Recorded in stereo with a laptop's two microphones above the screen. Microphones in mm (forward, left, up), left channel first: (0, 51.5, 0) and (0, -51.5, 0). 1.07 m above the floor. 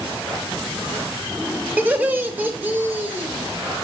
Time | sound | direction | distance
1.8 | laughter | 20° right (ahead or behind) | 2 m